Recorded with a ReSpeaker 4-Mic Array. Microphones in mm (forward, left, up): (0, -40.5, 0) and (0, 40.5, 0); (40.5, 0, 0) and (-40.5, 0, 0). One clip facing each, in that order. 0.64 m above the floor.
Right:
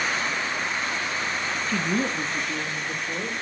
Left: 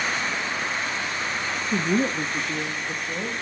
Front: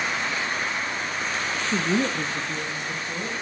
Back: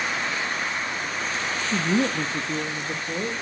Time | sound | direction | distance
1.7 | a woman speaking | 45° left | 0.8 m